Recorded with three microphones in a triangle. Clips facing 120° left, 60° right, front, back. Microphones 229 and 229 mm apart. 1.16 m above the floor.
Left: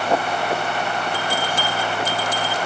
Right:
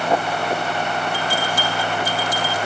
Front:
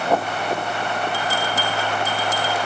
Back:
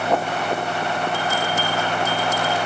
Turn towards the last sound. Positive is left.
turn(degrees=55)